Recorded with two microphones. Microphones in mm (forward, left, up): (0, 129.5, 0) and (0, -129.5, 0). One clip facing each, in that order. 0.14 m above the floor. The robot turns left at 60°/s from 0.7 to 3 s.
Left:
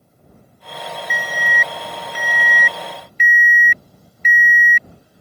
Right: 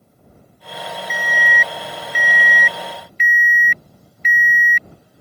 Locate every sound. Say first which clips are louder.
1.1 s an alarm: right 1 dB; 145° right; by 4.9 s 100° left